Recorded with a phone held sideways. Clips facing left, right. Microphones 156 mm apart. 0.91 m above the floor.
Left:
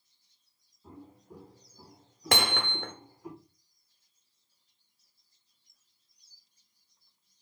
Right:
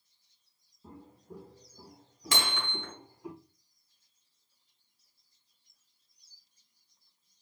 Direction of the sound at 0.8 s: 35° right (ahead or behind).